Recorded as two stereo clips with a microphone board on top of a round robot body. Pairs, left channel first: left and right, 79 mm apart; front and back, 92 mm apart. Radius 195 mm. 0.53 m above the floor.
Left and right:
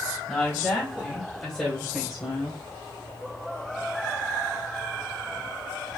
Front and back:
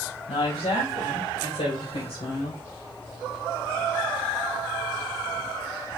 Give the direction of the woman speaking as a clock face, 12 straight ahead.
12 o'clock.